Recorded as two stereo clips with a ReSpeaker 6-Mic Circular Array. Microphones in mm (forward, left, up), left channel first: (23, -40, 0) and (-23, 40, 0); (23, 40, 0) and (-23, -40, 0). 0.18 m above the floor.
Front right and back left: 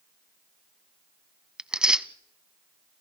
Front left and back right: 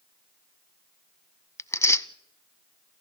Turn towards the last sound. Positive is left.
turn(degrees=45)